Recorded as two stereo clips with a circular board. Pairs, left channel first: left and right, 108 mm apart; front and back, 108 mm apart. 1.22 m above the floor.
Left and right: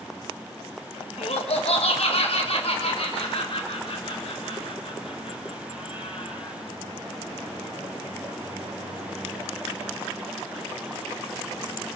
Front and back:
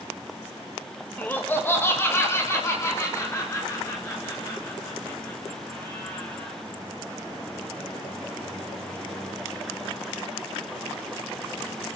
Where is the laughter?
75° left, 1.5 m; by 6.6 s 60° left, 7 m.